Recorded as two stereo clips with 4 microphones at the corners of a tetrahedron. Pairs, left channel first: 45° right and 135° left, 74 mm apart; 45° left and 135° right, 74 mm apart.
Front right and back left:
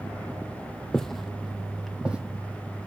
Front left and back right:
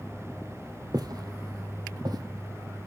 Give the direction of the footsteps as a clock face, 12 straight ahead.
4 o'clock.